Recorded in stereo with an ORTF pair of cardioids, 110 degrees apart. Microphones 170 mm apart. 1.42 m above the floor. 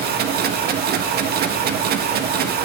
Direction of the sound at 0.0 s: 60° right.